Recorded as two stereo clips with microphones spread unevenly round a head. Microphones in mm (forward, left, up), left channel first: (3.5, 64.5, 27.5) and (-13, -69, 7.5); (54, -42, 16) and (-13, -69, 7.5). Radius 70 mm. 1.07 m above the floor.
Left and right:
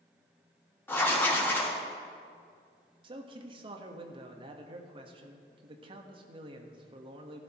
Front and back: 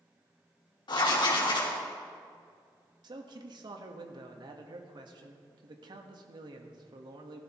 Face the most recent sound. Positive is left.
turn(degrees=-150)